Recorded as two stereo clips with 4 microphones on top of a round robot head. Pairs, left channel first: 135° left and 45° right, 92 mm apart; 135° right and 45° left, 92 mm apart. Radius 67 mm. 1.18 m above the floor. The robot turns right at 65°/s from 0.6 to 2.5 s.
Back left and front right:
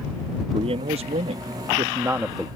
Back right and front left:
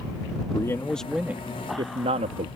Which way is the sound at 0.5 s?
75° right.